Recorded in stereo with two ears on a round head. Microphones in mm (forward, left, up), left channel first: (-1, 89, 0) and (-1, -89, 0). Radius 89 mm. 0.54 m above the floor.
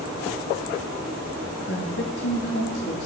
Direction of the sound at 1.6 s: 55° left (ahead or behind).